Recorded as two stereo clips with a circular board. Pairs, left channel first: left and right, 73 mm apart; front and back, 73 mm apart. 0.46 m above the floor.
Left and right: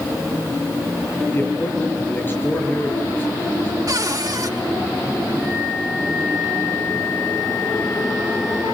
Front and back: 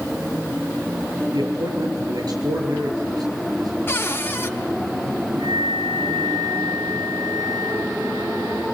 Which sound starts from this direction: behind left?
A man speaking, at 1.3 s.